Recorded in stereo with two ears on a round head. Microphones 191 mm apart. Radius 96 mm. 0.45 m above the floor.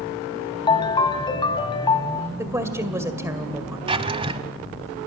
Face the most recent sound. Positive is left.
turn(degrees=-25)  # may be behind; listen again after turning